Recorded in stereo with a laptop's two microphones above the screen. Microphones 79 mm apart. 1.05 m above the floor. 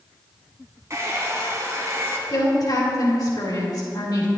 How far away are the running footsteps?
No running footsteps in this recording.